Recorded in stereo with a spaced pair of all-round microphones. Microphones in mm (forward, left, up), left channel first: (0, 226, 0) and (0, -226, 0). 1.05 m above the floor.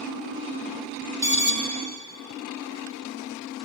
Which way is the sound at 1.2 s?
30° right (ahead or behind).